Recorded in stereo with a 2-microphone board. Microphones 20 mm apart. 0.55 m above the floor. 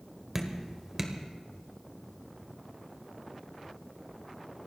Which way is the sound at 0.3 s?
15° right (ahead or behind).